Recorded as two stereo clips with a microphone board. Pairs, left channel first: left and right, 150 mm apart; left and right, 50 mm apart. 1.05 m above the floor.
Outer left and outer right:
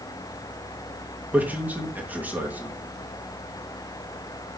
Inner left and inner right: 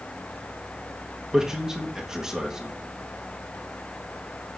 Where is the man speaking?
10° right (ahead or behind), 1.6 m.